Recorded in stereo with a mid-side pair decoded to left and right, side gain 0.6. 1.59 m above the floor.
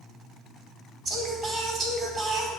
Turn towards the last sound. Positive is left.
turn(degrees=-40)